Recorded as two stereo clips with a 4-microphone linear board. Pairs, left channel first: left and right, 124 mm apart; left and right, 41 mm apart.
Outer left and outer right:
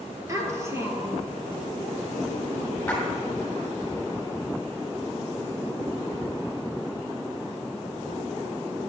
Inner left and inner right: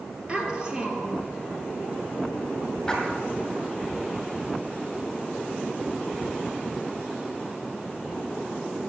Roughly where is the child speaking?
Right.